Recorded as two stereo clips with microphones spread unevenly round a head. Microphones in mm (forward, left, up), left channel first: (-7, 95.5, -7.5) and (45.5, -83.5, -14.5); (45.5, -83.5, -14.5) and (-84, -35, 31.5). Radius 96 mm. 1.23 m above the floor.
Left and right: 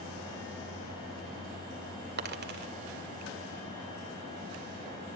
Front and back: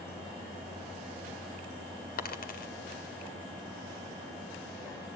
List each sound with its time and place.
2.2 s a dropped coin: 40° right, 2.5 m